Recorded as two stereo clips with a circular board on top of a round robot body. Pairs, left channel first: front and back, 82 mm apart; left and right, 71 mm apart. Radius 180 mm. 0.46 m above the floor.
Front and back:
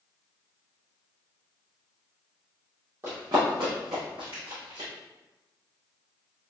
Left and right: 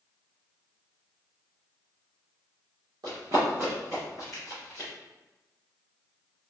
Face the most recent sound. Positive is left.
turn(degrees=165)